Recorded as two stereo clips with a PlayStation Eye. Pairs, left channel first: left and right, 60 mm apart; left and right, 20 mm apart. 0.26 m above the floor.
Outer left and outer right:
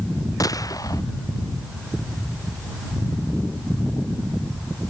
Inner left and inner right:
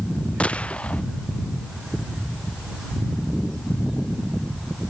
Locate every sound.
0.4 s a gunshot: 90° left